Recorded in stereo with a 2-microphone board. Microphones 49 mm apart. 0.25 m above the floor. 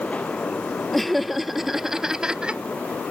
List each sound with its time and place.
0.9 s laughter: centre (ahead or behind); by 2.6 s 20° right (ahead or behind)